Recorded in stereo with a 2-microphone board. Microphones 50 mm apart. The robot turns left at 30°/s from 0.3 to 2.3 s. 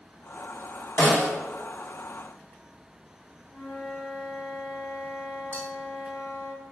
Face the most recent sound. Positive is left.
turn(degrees=25)  # may be behind; listen again after turning